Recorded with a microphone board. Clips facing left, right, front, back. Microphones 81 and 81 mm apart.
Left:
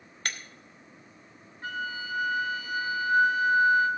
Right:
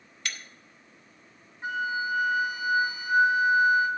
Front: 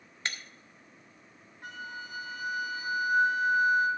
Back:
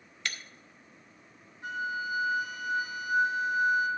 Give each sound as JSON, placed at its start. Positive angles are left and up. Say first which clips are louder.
{"t": 0.2, "sound": "breaking glass", "louder": "left 2 dB, front 1 dB", "azimuth_deg": 50, "distance_m": 1.0}
{"t": 1.6, "sound": "a flute", "louder": "right 5 dB, back 8 dB", "azimuth_deg": -20, "distance_m": 2.0}